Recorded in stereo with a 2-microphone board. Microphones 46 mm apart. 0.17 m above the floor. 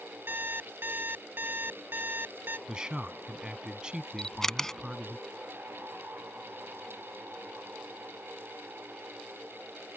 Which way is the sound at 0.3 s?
55° right (ahead or behind).